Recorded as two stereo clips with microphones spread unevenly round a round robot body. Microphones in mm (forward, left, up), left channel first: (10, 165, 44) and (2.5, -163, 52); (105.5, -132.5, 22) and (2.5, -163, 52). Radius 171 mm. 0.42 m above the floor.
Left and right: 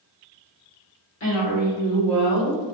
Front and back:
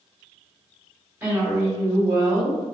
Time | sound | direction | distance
1.2 | a woman speaking | 110° left | 1.7 m